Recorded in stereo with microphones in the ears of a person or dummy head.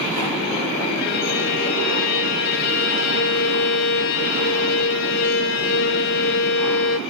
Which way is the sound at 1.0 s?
50° left (ahead or behind).